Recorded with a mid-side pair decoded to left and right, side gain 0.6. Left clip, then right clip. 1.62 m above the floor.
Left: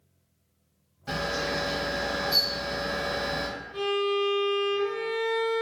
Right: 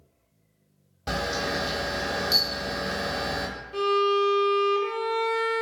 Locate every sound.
1.1 s a camera shutter: 60° right, 0.9 m
3.7 s a violin: 65° right, 0.8 m